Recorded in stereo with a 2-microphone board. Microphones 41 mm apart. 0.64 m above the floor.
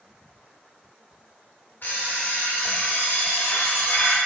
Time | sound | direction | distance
1.8 | an alarm clock | 45° left (ahead or behind) | 0.9 m